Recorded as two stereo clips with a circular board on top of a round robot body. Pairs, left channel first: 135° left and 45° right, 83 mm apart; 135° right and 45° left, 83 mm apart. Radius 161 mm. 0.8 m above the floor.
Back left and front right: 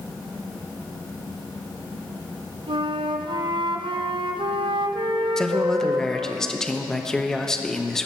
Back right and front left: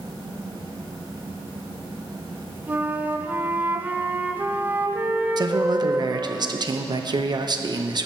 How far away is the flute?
About 0.8 m.